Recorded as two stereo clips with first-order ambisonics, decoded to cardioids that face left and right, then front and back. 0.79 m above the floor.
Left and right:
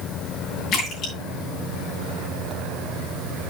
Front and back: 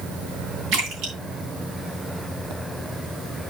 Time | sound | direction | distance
0.7 | a splash | 140° left | 4.5 m